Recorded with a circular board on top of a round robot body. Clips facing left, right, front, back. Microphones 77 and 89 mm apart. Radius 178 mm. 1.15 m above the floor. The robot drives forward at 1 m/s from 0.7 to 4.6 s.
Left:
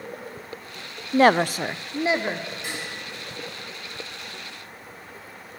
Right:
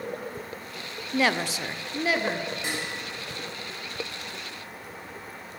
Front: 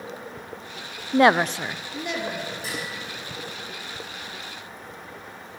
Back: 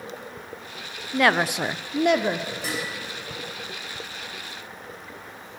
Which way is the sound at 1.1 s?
45° left.